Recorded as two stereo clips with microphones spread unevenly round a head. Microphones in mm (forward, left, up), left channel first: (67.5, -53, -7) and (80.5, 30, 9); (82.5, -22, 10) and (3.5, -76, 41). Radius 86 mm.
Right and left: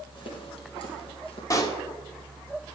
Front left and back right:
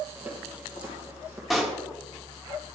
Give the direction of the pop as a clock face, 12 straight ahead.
4 o'clock.